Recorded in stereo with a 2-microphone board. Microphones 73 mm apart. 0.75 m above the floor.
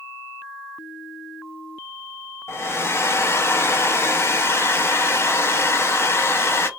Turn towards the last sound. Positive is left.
turn(degrees=35)  # may be behind; listen again after turning